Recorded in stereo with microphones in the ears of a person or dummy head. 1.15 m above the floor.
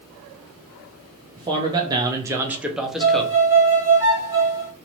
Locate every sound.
1.4 s a man speaking: 20° right (ahead or behind), 0.8 m; by 3.4 s 5° left (ahead or behind), 0.9 m
3.0 s a violin: 15° right (ahead or behind), 1.1 m